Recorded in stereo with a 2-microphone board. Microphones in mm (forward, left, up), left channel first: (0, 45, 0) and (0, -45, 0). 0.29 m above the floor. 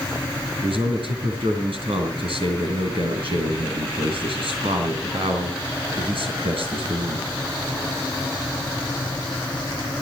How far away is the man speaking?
About 5 m.